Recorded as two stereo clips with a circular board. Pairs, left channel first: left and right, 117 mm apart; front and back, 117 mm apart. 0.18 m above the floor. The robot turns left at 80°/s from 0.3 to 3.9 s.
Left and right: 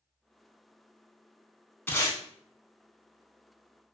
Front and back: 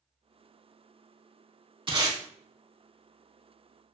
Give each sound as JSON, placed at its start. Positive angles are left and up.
{"t": 1.9, "sound": "tape being pulled", "azimuth_deg": 155, "distance_m": 0.6}